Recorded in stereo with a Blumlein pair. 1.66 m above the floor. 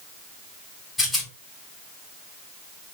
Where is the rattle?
10° left, 3 m.